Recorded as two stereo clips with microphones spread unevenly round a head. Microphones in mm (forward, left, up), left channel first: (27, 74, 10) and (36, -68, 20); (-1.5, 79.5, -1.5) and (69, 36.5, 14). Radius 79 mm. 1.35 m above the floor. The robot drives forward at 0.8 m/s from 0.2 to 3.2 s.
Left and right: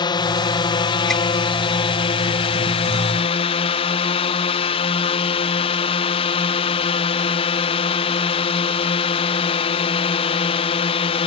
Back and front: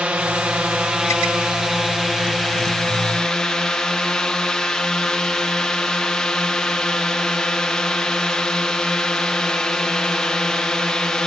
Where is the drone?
45° left; by 11.3 s 75° left.